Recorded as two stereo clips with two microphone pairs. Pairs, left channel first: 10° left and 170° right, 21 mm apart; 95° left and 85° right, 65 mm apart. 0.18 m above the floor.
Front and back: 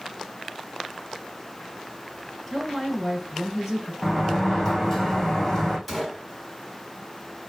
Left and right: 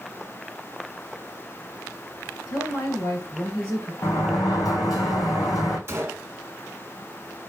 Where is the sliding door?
80° left, 1.4 m.